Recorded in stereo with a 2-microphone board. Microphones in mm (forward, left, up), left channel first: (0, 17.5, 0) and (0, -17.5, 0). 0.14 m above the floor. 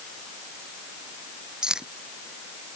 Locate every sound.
1.6 s keys jangling: 20° right (ahead or behind)